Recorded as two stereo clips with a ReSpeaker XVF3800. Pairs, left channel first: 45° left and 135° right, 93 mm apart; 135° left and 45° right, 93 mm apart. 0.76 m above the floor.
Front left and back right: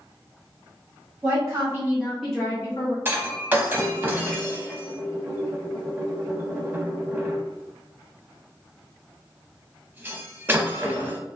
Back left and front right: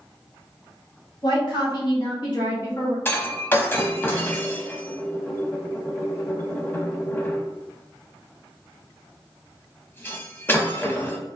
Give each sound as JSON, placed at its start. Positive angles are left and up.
{"t": 1.2, "sound": "a woman speaking", "azimuth_deg": 175, "distance_m": 1.9}
{"t": 3.0, "sound": "breaking glass", "azimuth_deg": 180, "distance_m": 0.6}